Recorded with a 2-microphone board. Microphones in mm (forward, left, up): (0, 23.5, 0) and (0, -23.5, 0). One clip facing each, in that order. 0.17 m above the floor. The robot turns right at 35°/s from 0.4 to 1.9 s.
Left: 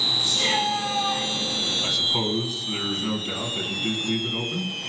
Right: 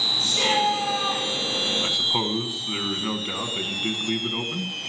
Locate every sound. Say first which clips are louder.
0.2 s a shout: right 4 dB; 60° right (ahead or behind), 5 m; by 1.2 s 75° right (ahead or behind), 5 m
1.8 s a man speaking: even; 20° right (ahead or behind), 1.4 m